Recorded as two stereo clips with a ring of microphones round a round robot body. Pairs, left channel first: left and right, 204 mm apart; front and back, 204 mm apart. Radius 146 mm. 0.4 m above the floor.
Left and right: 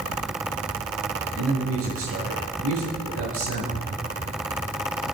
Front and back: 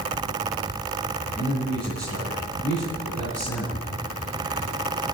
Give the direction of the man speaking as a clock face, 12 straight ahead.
3 o'clock.